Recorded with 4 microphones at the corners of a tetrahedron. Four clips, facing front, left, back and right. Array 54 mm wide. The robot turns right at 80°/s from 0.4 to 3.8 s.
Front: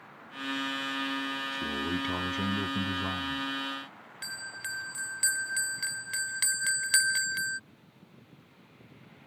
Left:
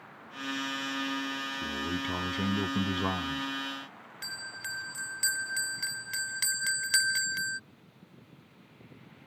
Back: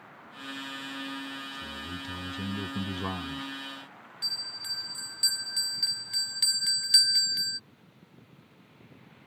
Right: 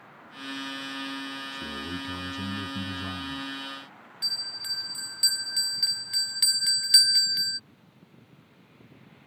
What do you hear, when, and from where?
1.5 s a man speaking: 10° right; by 3.5 s 145° left
4.2 s a bell: 30° left